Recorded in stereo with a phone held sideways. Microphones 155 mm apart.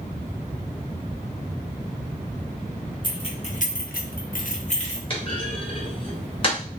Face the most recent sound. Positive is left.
turn(degrees=35)  # may be behind; listen again after turning